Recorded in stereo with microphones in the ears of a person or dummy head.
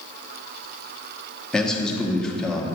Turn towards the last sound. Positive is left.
turn(degrees=0)  # may be behind; listen again after turning